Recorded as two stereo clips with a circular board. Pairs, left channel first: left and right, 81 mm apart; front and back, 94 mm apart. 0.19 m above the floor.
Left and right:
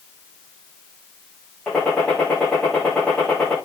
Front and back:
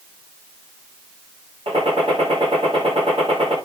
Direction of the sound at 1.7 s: 170° left.